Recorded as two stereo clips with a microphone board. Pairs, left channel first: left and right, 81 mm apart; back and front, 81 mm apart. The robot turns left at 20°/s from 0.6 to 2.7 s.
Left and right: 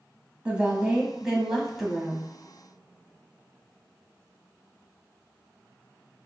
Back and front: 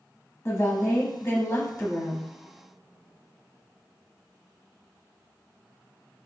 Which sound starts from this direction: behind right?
A woman speaking, at 0.5 s.